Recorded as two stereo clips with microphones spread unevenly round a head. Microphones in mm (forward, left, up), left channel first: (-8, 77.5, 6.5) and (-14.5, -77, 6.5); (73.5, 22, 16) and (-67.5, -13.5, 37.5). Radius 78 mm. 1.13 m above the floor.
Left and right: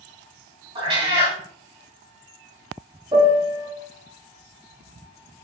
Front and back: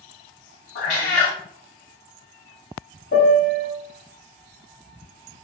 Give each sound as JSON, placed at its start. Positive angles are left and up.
{"t": 0.8, "sound": "a cat meowing", "azimuth_deg": -35, "distance_m": 1.8}
{"t": 3.1, "sound": "a piano", "azimuth_deg": -25, "distance_m": 0.9}